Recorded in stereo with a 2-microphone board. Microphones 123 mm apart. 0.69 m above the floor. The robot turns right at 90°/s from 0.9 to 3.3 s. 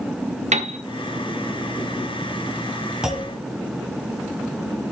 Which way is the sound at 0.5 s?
65° right (ahead or behind).